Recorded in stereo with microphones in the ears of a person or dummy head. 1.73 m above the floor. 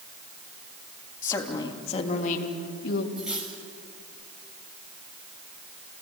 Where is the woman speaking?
20° left (ahead or behind), 3 m; by 3.1 s 60° left (ahead or behind), 3 m.